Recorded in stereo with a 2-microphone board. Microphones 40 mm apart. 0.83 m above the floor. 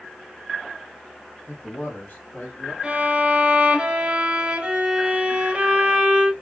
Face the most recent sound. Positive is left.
turn(degrees=-30)  # may be behind; listen again after turning